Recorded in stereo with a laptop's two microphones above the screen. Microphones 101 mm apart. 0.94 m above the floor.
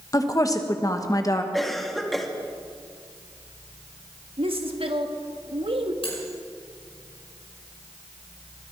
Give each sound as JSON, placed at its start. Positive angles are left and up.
{"t": 0.1, "sound": "a woman speaking", "side_deg": 35, "distance_m": 1.0}
{"t": 1.5, "sound": "a cough", "side_deg": 0, "distance_m": 1.9}
{"t": 4.4, "sound": "a woman speaking", "side_deg": -65, "distance_m": 1.6}
{"t": 6.0, "sound": "cutlery clinking", "side_deg": 65, "distance_m": 7.0}